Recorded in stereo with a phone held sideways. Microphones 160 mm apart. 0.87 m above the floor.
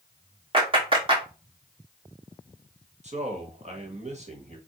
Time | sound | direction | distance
0.5 | a clap | 35° right (ahead or behind) | 1.4 m
3.0 | a man speaking | 45° right (ahead or behind) | 1.2 m